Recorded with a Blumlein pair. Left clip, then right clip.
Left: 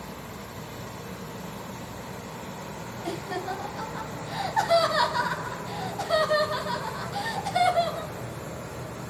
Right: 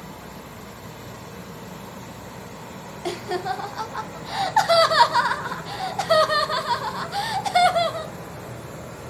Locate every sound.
3.0 s laughter: 65° right, 1.0 m